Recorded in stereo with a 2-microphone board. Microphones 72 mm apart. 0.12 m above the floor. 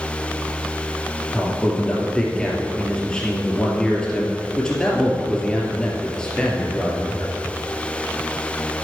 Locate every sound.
1.3 s a man speaking: 10° left (ahead or behind), 3 m